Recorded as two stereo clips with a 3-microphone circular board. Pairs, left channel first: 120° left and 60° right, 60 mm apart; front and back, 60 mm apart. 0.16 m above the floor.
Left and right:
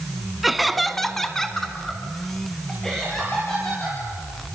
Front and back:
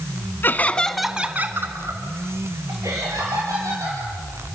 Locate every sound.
0.4 s laughter: 30° left, 1.4 m; by 4.0 s 155° right, 4.5 m